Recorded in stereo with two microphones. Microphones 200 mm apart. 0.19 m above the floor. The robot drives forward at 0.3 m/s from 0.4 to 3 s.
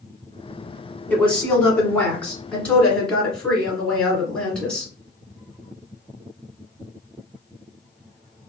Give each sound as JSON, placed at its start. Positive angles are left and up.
{"t": 1.1, "sound": "a woman speaking", "side_deg": 5, "distance_m": 1.3}